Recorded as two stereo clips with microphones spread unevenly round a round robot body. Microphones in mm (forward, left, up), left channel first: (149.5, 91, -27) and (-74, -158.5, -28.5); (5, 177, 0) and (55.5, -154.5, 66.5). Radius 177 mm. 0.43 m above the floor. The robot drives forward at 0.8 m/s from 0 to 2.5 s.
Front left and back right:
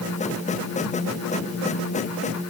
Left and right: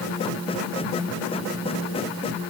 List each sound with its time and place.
Only background noise.